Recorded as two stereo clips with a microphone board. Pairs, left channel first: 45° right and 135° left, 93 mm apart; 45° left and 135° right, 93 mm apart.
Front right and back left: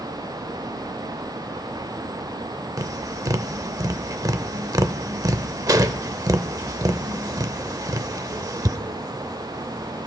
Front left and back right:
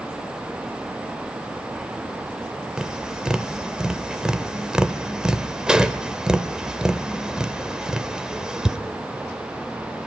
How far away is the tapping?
About 0.6 m.